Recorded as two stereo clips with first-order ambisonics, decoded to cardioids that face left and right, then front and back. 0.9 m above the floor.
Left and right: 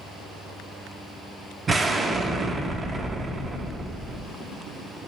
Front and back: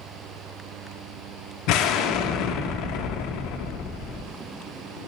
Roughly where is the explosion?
Ahead.